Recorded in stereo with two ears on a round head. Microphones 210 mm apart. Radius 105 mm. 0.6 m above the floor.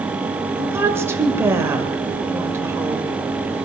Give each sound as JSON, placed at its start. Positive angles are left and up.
{"t": 0.6, "sound": "a woman speaking", "side_deg": -10, "distance_m": 1.9}